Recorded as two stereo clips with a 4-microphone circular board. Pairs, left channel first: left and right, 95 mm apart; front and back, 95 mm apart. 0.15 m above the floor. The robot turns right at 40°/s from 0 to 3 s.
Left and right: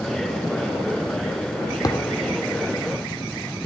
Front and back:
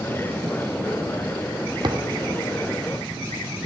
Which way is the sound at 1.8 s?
140° left.